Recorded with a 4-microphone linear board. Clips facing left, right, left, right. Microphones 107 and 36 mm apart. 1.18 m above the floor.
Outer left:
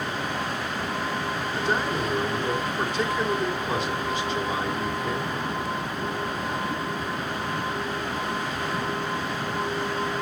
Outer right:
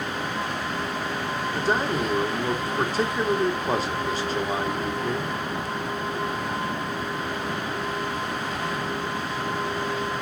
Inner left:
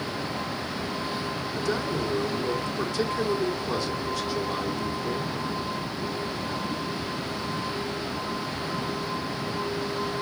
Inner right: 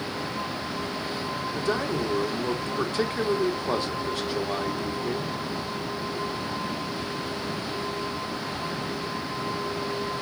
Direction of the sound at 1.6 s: 35° right (ahead or behind).